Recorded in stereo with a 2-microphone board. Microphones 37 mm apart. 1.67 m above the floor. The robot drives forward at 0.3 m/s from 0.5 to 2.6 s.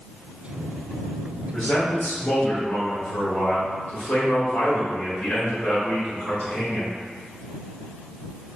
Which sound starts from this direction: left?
A man speaking, at 1.5 s.